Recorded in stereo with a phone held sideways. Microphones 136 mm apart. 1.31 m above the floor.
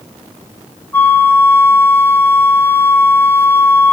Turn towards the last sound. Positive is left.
turn(degrees=15)  # may be behind; listen again after turning